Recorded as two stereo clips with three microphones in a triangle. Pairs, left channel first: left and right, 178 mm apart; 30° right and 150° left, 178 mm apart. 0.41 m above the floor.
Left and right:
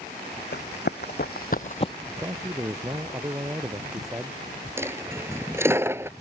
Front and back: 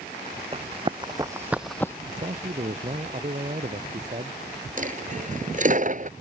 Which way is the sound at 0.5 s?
95° left.